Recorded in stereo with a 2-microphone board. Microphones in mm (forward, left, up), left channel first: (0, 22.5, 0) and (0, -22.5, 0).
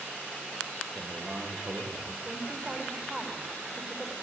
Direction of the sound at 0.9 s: 30° right (ahead or behind).